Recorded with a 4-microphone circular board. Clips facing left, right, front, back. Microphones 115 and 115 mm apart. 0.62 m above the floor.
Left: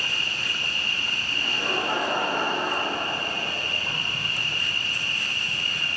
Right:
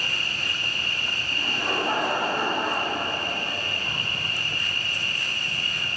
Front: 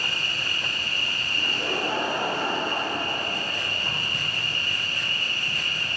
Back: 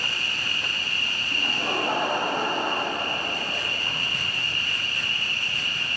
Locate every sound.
0.0 s an insect: 55° right, 5.5 m
1.3 s laughter: 145° right, 5 m